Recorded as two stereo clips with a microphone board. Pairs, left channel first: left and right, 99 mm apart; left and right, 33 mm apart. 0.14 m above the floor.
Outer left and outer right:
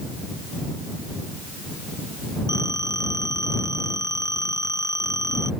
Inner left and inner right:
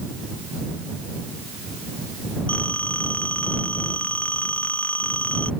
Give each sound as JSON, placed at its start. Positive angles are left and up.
{"t": 2.5, "sound": "a phone ringing", "side_deg": 40}